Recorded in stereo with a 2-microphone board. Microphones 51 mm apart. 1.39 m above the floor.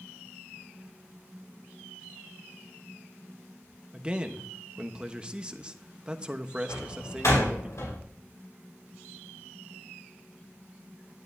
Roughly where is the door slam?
Left.